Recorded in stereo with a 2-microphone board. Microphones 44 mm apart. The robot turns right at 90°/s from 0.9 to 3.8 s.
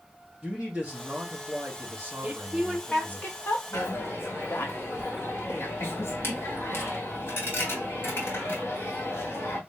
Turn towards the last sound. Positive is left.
turn(degrees=65)  # may be behind; listen again after turning